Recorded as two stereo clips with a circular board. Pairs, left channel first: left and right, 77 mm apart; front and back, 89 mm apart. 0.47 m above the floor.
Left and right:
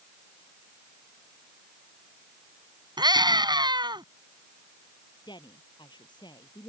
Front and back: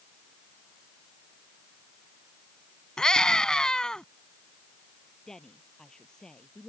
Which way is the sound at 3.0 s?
80° right.